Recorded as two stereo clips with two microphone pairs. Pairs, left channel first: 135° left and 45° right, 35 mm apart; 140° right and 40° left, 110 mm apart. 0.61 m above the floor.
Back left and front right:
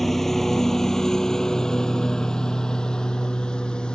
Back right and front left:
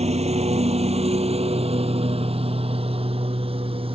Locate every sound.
0.0 s a lawn mower: 55° left; by 4.0 s 75° left